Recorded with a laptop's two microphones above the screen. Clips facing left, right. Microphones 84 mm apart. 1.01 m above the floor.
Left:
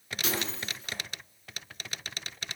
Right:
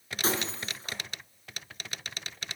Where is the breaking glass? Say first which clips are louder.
Right 3 dB; 35° right (ahead or behind), 4.5 m.